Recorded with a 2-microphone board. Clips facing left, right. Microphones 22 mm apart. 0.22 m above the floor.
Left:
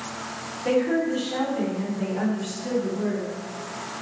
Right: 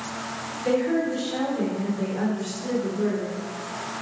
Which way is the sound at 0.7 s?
50° left (ahead or behind).